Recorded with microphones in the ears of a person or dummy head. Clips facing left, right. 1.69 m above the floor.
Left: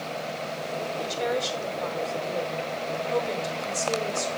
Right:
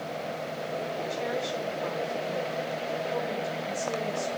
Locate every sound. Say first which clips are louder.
1.0 s a woman speaking: left 6 dB; 55° left (ahead or behind), 5 m